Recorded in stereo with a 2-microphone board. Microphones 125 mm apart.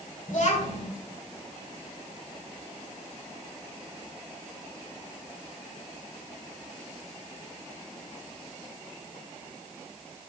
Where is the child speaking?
75° left (ahead or behind), 2.5 m.